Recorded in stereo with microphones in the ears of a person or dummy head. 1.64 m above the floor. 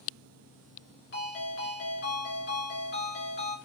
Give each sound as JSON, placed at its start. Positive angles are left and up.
{"t": 1.1, "sound": "a ringtone", "side_deg": 45, "distance_m": 1.5}